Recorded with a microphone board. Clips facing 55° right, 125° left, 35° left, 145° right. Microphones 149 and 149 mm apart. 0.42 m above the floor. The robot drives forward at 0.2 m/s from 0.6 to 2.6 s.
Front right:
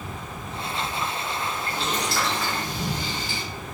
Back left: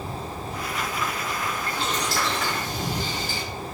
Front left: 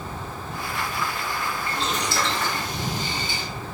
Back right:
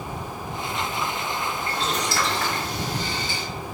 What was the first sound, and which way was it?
Boiling, 170° left.